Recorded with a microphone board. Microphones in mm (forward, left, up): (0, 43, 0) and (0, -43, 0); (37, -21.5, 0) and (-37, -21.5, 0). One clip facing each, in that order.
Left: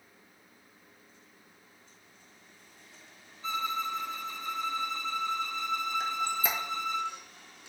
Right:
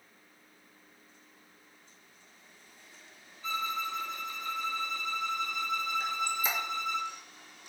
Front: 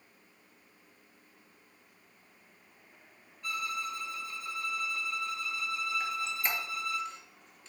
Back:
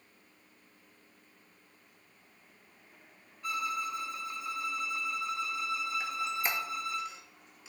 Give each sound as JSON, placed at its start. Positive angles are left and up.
{"t": 3.4, "sound": "a violin", "azimuth_deg": 130, "distance_m": 0.6}
{"t": 6.0, "sound": "a squeak", "azimuth_deg": 100, "distance_m": 0.5}